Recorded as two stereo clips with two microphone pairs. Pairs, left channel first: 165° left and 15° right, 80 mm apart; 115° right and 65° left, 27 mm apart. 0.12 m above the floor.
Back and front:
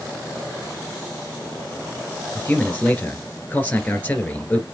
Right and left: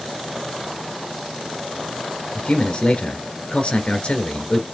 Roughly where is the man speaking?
Behind right.